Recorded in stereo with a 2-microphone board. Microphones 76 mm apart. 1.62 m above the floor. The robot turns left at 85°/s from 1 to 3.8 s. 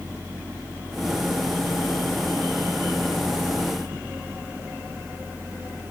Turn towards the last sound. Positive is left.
No sound to turn to.